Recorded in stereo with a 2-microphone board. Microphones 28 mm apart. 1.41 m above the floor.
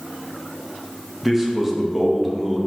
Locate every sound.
1.2 s a man speaking: 5° right (ahead or behind), 1.5 m